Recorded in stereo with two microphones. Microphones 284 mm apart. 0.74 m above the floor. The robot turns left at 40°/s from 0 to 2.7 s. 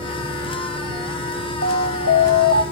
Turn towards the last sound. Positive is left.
turn(degrees=-125)